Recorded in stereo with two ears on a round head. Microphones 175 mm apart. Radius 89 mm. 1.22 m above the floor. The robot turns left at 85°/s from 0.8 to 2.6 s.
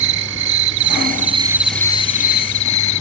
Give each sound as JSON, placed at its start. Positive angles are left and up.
{"t": 0.0, "sound": "an insect", "azimuth_deg": -105}